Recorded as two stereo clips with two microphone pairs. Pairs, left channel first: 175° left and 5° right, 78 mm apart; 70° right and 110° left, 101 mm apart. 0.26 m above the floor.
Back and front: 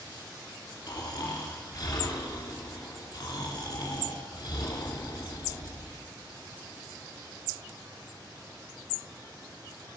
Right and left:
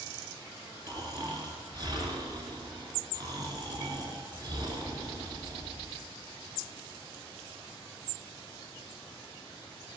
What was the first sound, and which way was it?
Snoring, 155° left.